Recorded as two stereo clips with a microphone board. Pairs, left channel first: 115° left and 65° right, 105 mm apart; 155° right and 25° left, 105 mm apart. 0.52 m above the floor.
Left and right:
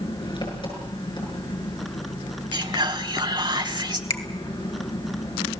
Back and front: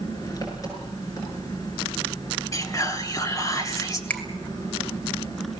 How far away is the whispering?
About 2 m.